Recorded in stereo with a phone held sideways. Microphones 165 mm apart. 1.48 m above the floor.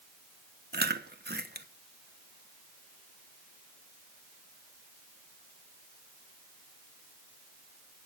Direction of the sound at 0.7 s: 75° right (ahead or behind).